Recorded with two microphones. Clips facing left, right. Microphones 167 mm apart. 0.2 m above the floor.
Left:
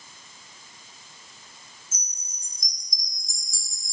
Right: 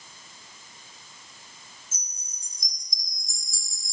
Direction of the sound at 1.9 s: Centre (ahead or behind).